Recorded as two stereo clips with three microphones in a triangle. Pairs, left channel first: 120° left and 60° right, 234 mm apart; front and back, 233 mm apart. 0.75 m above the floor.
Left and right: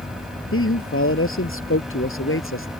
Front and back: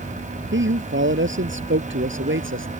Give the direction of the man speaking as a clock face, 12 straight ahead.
7 o'clock.